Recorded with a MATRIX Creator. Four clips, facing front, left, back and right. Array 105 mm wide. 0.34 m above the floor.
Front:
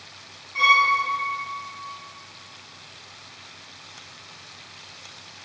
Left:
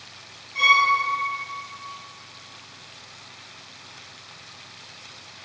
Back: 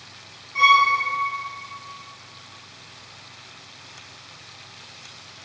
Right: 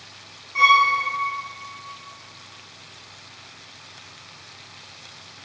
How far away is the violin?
About 0.5 m.